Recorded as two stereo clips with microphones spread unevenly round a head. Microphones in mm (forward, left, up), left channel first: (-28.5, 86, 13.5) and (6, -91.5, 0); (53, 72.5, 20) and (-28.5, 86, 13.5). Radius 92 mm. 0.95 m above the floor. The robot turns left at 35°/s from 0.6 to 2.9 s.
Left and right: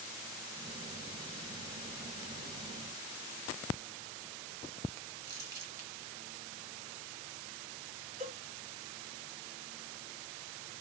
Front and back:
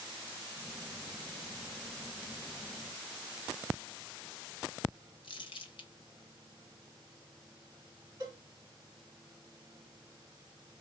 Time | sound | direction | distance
5.2 | crumpling | 10° right | 1.3 m
8.2 | a cowbell | 130° right | 2 m